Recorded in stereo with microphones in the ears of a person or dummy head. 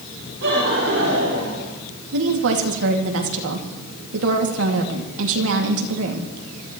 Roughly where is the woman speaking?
Right.